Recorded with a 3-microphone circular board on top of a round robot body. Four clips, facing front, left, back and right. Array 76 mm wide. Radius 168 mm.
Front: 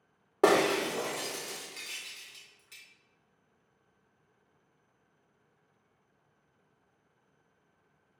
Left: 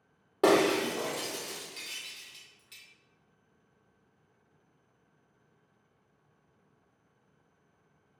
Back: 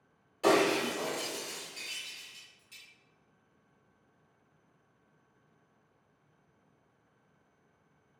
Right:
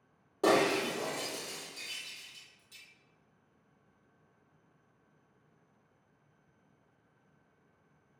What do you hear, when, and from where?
0.4 s breaking glass: 15° left, 3 m